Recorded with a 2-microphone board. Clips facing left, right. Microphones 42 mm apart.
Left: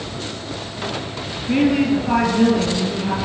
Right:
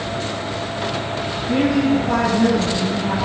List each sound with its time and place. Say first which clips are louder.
1.5 s a woman speaking: left 1 dB; 50° left (ahead or behind), 2.5 m